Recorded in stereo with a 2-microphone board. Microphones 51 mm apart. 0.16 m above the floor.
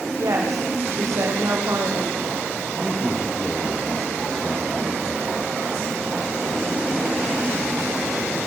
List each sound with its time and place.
0.2 s a woman speaking: 75° right (ahead or behind), 7.5 m
2.8 s a man speaking: 15° left (ahead or behind), 6 m